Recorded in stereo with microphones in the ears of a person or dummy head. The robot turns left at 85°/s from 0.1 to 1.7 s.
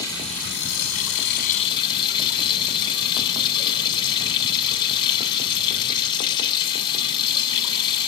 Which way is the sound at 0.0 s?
165° left.